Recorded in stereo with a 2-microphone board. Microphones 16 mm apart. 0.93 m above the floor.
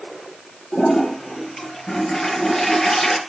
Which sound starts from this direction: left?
A toilet flushing, at 0.7 s.